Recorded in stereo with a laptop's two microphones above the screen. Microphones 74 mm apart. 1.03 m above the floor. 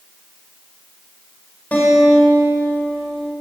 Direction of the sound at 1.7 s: 20° left (ahead or behind).